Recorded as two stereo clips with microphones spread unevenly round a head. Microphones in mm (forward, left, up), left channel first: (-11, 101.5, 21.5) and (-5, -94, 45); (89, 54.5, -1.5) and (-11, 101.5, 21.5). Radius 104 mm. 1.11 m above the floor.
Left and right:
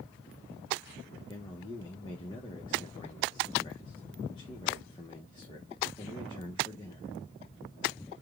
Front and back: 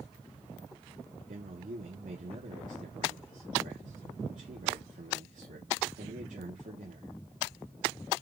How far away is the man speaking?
About 1.0 m.